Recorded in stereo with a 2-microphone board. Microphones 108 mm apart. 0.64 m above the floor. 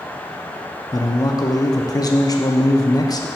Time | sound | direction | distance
0.9 | a man speaking | 35° left (ahead or behind) | 0.6 m